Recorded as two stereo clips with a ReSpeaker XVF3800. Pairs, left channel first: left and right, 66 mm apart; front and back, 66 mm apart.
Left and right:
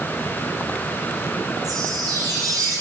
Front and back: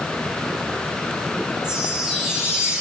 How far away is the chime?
About 3.5 m.